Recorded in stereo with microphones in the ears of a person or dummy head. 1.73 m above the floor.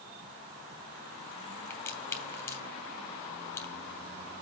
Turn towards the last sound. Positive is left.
turn(degrees=15)  # may be behind; listen again after turning